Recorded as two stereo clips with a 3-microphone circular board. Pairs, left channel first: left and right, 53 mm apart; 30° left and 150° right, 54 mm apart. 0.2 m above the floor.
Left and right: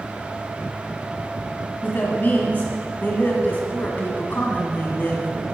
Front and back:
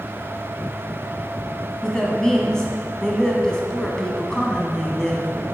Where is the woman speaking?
100° left, 1.8 m.